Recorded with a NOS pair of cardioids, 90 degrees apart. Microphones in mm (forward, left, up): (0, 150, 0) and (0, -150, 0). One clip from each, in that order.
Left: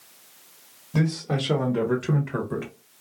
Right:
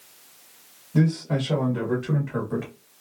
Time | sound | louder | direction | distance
0.9 | a man speaking | right 1 dB | 65° left | 1.6 m